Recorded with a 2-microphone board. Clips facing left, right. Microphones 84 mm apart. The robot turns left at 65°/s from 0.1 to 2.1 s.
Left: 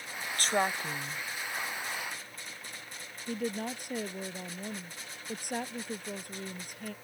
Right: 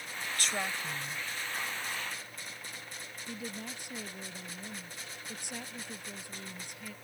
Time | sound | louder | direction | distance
0.4 | a woman speaking | left 7 dB | 95° left | ?
3.3 | a woman speaking | left 9 dB | 50° left (ahead or behind) | ?